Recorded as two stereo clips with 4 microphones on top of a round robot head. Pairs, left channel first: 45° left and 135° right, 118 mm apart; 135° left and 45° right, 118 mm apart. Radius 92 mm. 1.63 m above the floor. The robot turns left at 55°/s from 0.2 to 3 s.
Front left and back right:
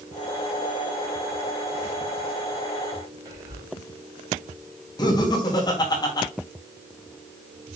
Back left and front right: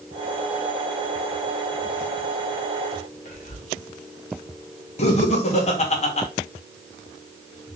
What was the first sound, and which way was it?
Whispering, 160° left.